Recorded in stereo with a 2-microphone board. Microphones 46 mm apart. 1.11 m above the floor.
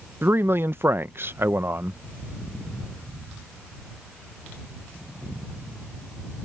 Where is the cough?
No cough in this recording.